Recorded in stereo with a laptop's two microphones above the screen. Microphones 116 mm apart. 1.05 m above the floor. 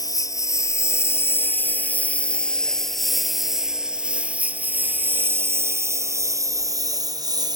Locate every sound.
0.0 s a lawn mower: 30° left (ahead or behind); by 7.6 s 35° right (ahead or behind)